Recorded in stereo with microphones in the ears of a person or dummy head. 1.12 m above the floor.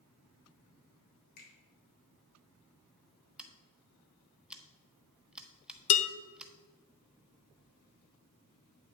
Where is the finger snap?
50° left (ahead or behind), 3.5 m.